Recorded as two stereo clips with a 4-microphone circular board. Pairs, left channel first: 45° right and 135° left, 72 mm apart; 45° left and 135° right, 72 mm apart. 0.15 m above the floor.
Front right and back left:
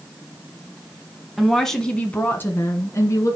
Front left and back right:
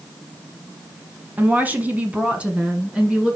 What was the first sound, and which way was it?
A woman speaking, 145° right.